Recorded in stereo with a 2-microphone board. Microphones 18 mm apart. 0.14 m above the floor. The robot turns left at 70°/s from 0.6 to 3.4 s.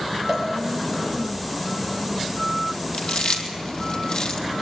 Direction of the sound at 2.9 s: 75° left (ahead or behind).